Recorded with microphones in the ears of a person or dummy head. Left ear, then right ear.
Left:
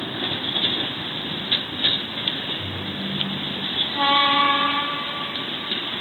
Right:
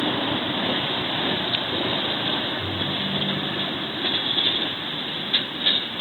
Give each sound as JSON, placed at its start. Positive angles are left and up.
{"t": 2.6, "sound": "a ringtone", "side_deg": 20, "distance_m": 3.0}